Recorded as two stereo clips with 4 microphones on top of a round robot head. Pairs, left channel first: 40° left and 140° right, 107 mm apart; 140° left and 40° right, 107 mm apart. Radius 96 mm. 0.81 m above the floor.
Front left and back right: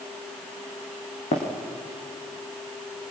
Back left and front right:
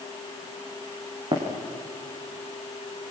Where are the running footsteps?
10° left, 4 m.